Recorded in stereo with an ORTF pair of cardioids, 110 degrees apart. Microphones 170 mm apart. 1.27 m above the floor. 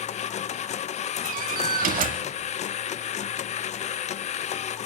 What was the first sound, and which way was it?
A machine running, 45° left.